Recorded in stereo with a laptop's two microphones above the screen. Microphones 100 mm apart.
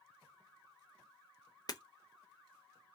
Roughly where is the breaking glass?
Left.